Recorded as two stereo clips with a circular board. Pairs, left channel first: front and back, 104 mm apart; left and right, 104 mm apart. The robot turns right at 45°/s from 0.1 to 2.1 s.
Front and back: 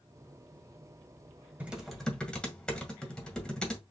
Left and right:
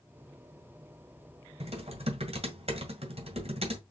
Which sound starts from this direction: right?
Typing on a keyboard, at 1.6 s.